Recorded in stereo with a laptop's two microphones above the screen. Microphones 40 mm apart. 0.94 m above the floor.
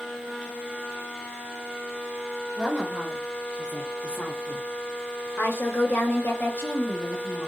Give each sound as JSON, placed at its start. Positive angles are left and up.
{"t": 2.6, "sound": "a woman speaking", "side_deg": 5, "distance_m": 1.7}